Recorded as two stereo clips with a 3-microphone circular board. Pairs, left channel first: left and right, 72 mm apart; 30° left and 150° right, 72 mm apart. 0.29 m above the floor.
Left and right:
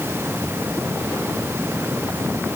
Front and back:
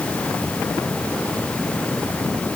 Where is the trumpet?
No trumpet in this recording.